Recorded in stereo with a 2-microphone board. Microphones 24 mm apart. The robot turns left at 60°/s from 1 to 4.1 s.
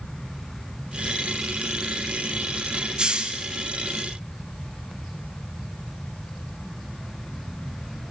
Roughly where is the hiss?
Right.